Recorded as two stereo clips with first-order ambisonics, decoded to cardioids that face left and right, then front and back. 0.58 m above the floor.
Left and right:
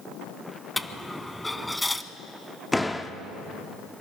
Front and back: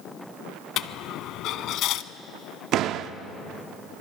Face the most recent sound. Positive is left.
turn(degrees=170)